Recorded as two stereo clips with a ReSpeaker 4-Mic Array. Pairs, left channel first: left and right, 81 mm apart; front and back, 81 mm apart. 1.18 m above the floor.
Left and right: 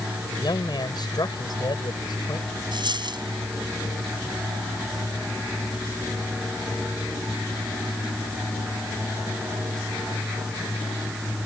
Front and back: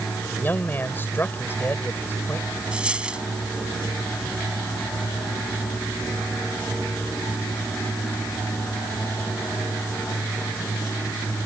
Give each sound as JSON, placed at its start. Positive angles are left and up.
{"t": 0.3, "sound": "a man speaking", "azimuth_deg": 65}
{"t": 2.7, "sound": "a dropped coin", "azimuth_deg": -100}